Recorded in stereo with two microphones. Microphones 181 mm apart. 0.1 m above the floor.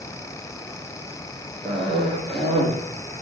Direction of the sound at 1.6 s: 30° right (ahead or behind).